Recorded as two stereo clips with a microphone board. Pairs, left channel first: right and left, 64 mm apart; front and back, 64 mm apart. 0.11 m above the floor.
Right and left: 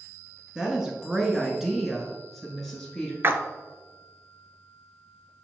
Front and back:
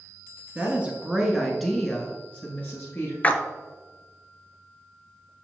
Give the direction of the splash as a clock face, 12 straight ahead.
10 o'clock.